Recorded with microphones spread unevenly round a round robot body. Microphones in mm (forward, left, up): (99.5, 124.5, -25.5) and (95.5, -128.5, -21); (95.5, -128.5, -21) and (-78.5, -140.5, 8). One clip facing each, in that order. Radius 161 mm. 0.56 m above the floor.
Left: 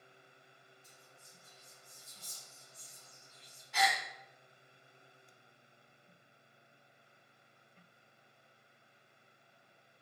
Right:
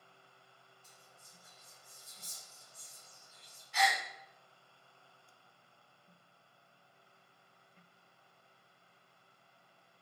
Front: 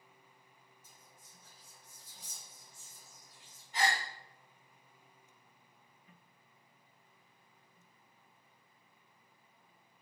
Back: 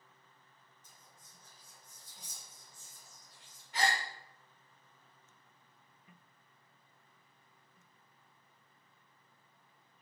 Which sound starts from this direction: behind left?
A gasp, at 3.7 s.